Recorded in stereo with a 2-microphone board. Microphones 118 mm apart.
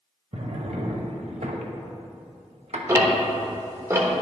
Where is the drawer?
65° right (ahead or behind), 0.8 m.